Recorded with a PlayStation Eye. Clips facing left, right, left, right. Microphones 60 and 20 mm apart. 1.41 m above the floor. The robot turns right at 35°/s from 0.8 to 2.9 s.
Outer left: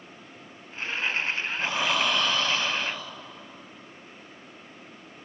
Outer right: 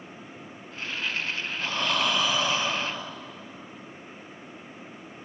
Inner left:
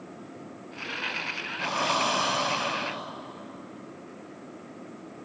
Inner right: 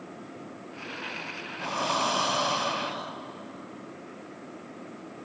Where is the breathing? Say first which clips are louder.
Outer left 1 dB, inner left 1 dB; 165° left, 0.6 m; by 3.2 s 150° right, 0.6 m.